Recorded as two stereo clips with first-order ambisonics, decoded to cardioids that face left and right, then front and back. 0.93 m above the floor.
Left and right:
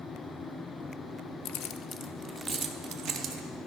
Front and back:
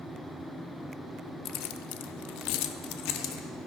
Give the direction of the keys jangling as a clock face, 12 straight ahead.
10 o'clock.